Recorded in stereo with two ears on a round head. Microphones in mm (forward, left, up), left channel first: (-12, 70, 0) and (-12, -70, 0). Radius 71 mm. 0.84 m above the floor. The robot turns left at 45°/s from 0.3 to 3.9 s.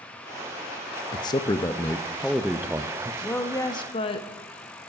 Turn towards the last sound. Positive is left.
turn(degrees=140)